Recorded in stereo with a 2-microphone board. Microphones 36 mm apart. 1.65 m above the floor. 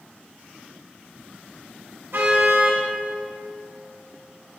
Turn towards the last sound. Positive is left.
turn(degrees=-65)  # may be behind; listen again after turning